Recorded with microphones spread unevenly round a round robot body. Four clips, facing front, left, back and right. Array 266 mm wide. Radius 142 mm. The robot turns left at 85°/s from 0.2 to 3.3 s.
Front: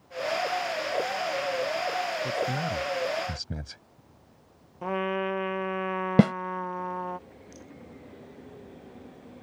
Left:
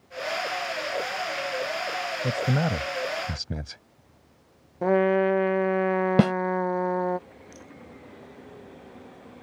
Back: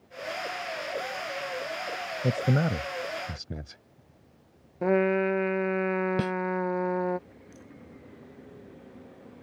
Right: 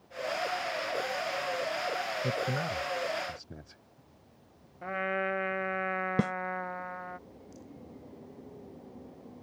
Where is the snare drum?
35° left.